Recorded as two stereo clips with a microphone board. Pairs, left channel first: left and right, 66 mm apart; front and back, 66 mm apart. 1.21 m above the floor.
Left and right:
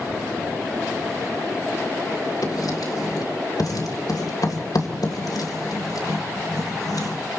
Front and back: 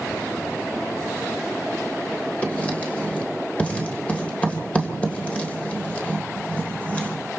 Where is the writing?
70° left, 3 m.